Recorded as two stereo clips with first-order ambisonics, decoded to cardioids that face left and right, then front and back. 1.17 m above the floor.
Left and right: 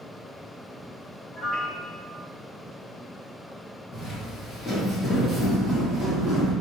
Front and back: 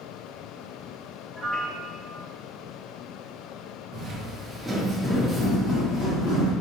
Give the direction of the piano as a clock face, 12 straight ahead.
9 o'clock.